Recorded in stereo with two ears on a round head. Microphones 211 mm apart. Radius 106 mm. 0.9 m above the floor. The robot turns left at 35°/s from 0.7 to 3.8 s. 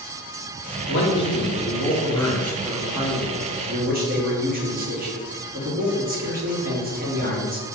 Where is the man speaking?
60° left, 1.2 m; by 7.7 s 40° right, 1.2 m.